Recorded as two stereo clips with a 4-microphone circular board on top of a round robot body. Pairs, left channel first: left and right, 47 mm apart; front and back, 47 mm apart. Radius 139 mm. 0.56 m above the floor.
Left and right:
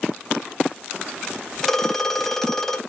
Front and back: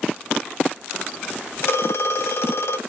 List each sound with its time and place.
1.6 s a phone ringing: 10° left, 0.8 m